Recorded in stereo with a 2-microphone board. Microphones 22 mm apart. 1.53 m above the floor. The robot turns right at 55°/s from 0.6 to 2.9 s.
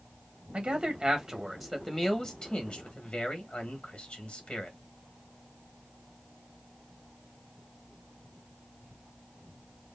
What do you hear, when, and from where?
0.5 s a man speaking: 50° right (ahead or behind), 1.4 m; by 4.8 s 65° left (ahead or behind), 1.4 m